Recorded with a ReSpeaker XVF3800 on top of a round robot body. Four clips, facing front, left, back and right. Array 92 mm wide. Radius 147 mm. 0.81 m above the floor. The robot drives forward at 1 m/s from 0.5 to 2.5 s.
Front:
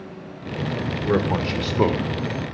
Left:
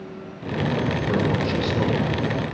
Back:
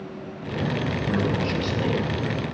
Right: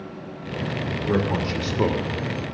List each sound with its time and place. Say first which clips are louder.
1.1 s a man speaking: right 2 dB, front 5 dB; 10° right, 2.5 m; by 2.6 s 25° right, 1.1 m